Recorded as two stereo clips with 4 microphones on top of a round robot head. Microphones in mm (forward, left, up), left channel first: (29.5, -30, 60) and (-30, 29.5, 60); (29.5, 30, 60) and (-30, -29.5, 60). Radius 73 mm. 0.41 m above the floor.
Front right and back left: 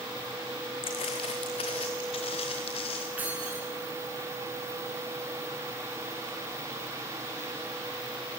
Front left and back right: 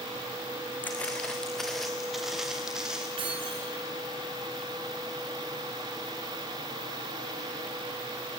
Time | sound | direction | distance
0.8 | footsteps | 25° right | 1.7 m
3.2 | keys jangling | 155° right | 4.5 m